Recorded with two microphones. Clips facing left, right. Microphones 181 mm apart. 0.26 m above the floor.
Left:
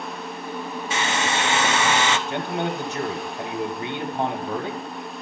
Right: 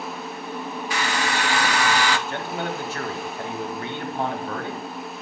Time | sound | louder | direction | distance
0.9 | a hair dryer | left 1 dB | 25° left (ahead or behind) | 0.6 m
2.3 | a man speaking | left 3 dB | 20° left (ahead or behind) | 1.0 m